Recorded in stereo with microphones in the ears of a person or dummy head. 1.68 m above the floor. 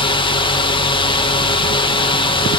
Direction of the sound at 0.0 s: 20° left (ahead or behind).